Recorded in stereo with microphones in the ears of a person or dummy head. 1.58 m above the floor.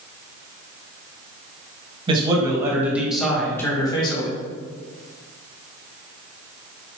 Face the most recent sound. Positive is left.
turn(degrees=35)  # may be behind; listen again after turning